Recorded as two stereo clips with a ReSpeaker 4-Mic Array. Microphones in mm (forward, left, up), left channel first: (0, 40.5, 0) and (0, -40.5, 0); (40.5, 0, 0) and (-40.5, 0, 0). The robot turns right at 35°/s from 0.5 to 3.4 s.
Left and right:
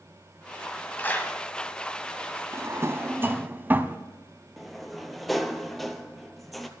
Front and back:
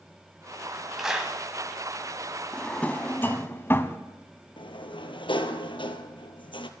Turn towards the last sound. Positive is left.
turn(degrees=0)